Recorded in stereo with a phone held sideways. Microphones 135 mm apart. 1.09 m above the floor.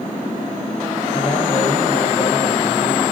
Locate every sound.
1.1 s a man speaking: 40° left (ahead or behind), 6 m